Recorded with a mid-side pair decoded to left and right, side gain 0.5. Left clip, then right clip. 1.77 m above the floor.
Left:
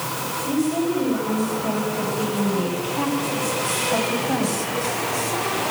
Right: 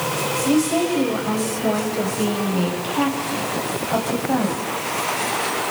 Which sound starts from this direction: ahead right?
A woman speaking, at 0.5 s.